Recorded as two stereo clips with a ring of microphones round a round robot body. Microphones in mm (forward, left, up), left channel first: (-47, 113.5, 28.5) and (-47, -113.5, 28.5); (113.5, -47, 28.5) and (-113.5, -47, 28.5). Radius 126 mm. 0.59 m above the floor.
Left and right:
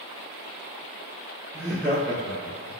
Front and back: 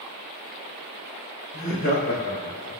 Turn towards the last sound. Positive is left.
turn(degrees=50)